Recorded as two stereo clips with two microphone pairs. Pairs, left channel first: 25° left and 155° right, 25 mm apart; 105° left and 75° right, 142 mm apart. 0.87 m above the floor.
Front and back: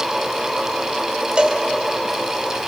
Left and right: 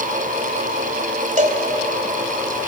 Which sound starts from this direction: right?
A cowbell, at 1.4 s.